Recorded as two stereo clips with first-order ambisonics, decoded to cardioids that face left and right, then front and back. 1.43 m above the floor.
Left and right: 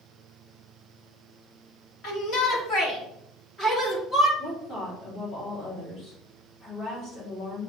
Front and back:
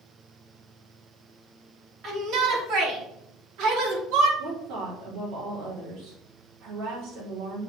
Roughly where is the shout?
Behind left.